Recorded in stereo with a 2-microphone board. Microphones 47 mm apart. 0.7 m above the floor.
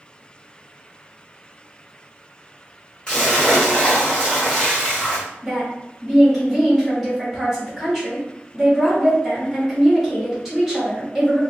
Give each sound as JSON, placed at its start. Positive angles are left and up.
{"t": 3.1, "sound": "a splash", "side_deg": 25, "distance_m": 1.8}
{"t": 5.4, "sound": "a woman speaking", "side_deg": -5, "distance_m": 2.0}